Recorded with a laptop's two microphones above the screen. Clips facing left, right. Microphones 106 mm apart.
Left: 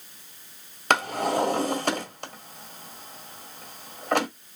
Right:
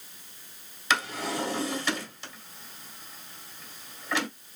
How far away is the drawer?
About 1.7 m.